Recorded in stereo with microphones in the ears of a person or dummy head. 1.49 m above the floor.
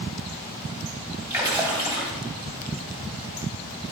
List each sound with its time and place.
1.3 s a splash: 20° right (ahead or behind), 3 m